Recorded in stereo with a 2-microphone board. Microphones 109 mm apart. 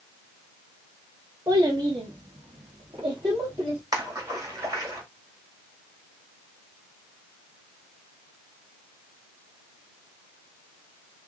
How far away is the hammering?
No hammering in this recording.